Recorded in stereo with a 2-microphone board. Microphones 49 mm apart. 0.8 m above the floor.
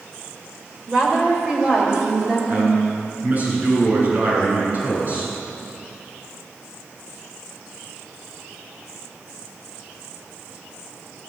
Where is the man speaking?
35° right (ahead or behind), 9.5 m.